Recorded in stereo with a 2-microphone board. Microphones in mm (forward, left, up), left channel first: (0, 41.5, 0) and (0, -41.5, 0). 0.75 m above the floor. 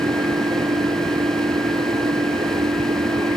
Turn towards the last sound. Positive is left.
turn(degrees=-80)